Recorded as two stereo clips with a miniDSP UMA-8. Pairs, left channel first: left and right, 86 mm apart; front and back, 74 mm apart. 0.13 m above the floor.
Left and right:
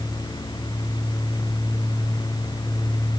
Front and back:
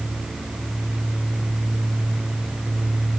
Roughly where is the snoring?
I don't hear snoring.